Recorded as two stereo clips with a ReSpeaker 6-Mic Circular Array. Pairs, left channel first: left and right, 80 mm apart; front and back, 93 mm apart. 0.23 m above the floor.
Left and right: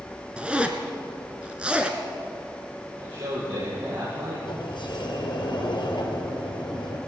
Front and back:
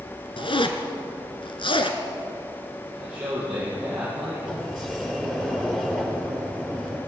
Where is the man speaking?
100° right, 7.5 m.